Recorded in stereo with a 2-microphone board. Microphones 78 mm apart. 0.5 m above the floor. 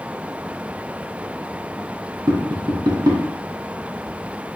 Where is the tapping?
60° right (ahead or behind), 1.9 m.